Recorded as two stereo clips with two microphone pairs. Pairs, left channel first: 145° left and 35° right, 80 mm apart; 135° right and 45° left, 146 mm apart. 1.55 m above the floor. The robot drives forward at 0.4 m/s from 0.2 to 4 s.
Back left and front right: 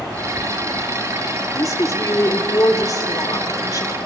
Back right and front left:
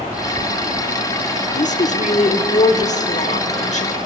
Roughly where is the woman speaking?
Behind.